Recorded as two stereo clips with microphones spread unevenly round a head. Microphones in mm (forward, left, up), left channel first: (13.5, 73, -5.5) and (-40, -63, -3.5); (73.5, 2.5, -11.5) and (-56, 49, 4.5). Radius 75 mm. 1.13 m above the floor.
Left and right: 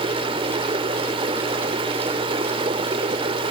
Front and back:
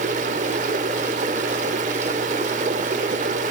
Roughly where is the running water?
Behind.